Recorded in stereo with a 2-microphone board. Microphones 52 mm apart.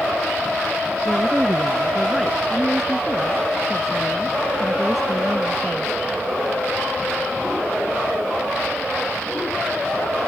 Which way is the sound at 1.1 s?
Centre (ahead or behind).